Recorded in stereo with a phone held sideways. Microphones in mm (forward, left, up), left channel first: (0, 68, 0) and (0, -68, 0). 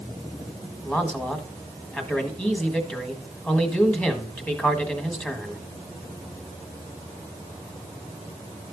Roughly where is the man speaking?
Centre.